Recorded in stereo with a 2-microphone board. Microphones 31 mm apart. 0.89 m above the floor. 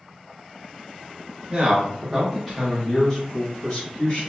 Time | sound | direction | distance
1.5 | a man speaking | 25° right (ahead or behind) | 1.2 m